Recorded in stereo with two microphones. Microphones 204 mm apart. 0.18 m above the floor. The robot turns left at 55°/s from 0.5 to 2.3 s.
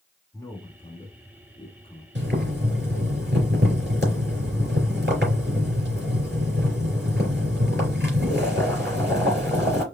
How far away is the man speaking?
About 1.6 m.